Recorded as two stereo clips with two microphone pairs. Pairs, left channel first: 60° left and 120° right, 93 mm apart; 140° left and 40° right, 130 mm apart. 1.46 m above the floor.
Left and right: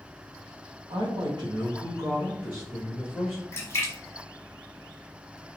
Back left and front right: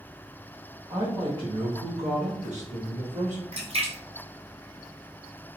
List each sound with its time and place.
0.9 s a woman speaking: 110° right, 0.7 m; by 3.4 s 30° right, 1.2 m
3.5 s a splash: straight ahead, 1.0 m